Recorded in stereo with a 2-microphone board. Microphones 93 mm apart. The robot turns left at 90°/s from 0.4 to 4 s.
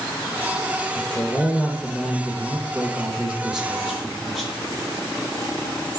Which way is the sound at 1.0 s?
20° left (ahead or behind).